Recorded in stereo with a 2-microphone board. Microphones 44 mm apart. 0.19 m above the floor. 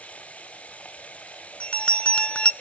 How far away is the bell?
About 0.5 m.